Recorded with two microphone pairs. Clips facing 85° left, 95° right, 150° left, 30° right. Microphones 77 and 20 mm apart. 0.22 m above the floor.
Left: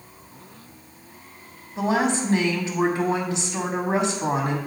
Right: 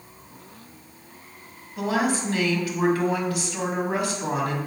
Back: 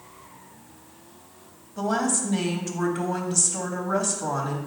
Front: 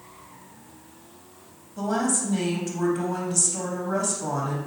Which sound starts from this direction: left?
A woman speaking, at 1.8 s.